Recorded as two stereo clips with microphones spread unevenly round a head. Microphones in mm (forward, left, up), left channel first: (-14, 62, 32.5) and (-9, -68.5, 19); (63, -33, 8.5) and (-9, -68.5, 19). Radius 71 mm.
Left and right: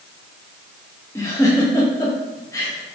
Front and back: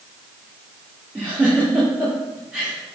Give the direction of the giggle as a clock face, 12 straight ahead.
7 o'clock.